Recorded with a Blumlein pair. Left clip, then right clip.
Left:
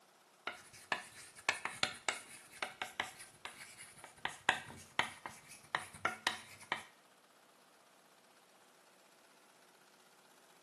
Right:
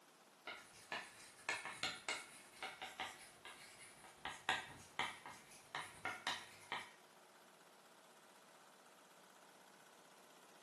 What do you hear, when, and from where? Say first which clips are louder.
0.5 s writing: left 8 dB; 60° left, 0.8 m